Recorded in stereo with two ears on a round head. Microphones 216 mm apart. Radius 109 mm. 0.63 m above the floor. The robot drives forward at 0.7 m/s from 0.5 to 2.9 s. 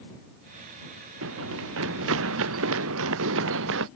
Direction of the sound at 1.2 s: 60° right (ahead or behind).